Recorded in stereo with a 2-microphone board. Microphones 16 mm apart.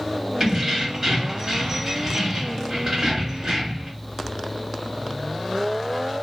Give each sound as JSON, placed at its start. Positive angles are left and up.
{"t": 0.4, "sound": "keys jangling", "side_deg": -35, "distance_m": 1.6}